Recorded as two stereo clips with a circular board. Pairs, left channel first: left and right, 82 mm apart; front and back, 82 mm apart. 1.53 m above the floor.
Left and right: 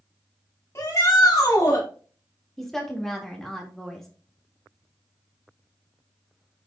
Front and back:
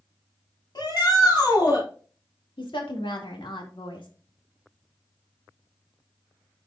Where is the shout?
35° left, 4 m.